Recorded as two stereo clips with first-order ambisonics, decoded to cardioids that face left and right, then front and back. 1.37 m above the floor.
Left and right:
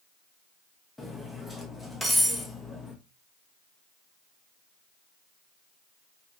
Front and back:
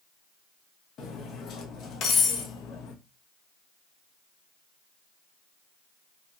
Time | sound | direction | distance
1.0 | cutlery clinking | straight ahead | 0.7 m